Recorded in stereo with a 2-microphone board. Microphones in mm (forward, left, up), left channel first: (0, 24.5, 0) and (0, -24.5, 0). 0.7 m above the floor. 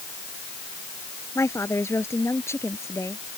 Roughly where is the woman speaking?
Left.